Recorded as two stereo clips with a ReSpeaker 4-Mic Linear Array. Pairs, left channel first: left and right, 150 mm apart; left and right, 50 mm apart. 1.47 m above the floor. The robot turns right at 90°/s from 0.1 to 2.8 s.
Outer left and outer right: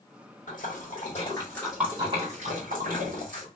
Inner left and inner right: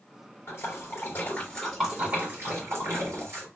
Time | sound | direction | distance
0.5 | a splash | 60° left (ahead or behind) | 2.0 m